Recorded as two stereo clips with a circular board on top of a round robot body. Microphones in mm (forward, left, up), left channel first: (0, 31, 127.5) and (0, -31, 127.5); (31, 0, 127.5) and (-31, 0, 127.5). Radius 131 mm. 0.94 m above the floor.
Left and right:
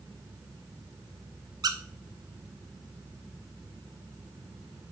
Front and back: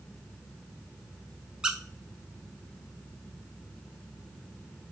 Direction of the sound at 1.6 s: 105° right.